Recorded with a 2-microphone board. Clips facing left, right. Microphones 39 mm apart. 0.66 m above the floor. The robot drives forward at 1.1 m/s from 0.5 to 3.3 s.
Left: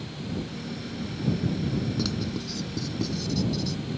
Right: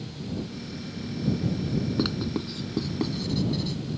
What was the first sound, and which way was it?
Writing, 25° right (ahead or behind).